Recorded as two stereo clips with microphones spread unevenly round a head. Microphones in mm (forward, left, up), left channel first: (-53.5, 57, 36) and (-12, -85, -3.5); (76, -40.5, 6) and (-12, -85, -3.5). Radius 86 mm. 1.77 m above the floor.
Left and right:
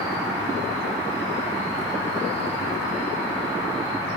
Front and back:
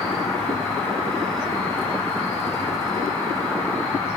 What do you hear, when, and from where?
0.0 s an insect: 50° right, 1.7 m